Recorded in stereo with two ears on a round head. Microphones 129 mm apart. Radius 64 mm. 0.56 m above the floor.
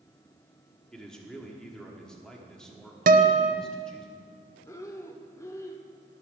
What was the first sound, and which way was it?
A man speaking, 5° left (ahead or behind).